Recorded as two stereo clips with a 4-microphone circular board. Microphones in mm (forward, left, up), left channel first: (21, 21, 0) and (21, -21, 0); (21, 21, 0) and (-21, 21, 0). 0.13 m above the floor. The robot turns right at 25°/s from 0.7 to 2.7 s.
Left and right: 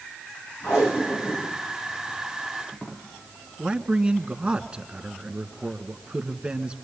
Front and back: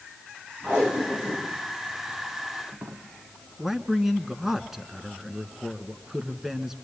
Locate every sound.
0.6 s tape being pulled: 110° left, 5 m; by 3.0 s 160° left, 5 m
3.6 s a man speaking: 110° right, 1.3 m